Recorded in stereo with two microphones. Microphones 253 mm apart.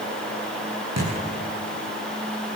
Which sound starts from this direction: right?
A thud, at 1.0 s.